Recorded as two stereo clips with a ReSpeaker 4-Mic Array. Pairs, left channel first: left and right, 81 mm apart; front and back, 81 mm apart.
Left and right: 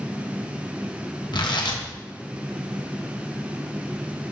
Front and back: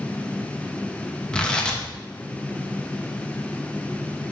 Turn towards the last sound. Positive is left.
turn(degrees=80)